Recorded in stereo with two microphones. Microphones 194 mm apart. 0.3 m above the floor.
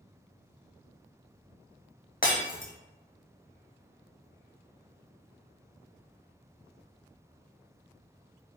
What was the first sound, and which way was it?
Breaking glass, 45° left (ahead or behind).